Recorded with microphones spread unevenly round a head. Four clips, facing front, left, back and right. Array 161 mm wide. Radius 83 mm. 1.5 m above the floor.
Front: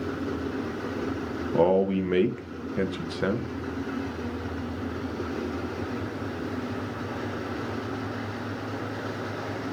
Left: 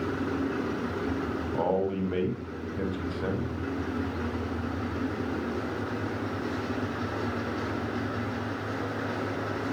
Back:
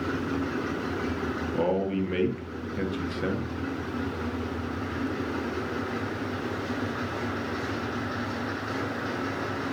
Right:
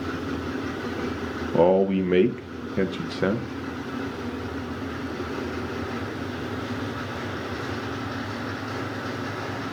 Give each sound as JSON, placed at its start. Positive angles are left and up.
{"t": 1.5, "sound": "a man speaking", "azimuth_deg": -75, "distance_m": 1.1}